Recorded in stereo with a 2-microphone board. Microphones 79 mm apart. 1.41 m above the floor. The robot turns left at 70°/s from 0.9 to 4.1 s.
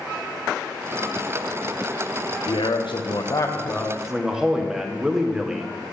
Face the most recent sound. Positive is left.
turn(degrees=-5)